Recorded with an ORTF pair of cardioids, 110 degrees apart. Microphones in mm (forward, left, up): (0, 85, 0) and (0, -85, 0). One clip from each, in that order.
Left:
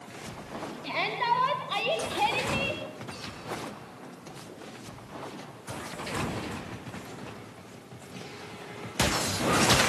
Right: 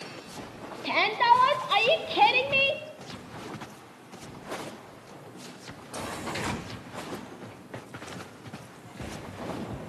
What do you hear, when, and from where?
0.8 s a shout: 35° right, 4 m; by 2.8 s 45° right, 3 m